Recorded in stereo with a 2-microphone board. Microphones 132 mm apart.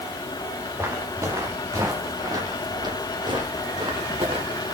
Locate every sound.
0.8 s footsteps: 20° right (ahead or behind), 4.5 m; by 4.7 s 45° right (ahead or behind), 5 m